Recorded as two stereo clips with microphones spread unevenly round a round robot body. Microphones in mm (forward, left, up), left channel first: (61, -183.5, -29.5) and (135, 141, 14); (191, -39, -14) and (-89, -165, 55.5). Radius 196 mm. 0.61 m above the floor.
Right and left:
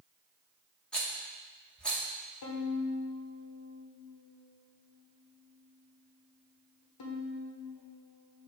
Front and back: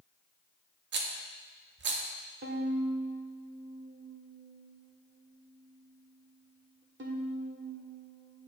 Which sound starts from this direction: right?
A violin, at 2.4 s.